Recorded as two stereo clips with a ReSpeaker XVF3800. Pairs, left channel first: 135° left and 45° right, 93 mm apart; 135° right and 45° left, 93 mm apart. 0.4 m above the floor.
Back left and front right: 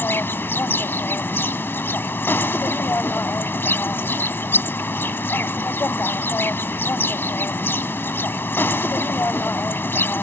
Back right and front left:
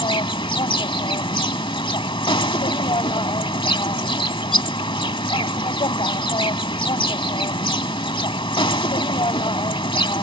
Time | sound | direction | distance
0.0 | an insect | 160° right | ?